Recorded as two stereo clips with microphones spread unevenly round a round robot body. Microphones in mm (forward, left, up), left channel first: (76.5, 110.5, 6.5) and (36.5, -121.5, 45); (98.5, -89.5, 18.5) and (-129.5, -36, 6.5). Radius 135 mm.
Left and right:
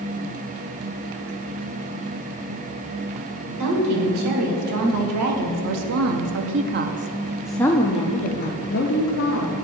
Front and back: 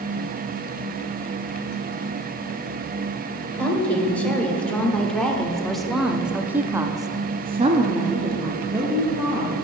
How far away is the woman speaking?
About 2 m.